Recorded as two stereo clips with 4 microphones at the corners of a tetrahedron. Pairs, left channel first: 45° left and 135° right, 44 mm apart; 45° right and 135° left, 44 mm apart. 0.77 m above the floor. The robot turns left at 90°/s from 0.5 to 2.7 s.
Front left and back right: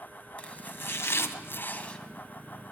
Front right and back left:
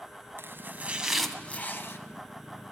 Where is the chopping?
105° left, 1.8 m; by 2.0 s 30° right, 1.8 m.